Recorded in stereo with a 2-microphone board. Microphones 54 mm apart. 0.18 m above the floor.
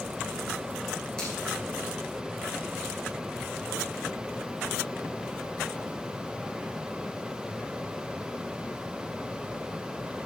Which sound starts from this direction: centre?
A finger snap, at 1.2 s.